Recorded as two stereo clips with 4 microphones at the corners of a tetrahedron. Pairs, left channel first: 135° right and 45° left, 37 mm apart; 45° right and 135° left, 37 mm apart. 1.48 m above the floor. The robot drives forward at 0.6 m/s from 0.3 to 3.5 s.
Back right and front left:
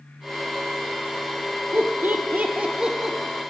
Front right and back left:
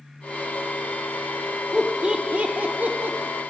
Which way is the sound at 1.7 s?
55° left.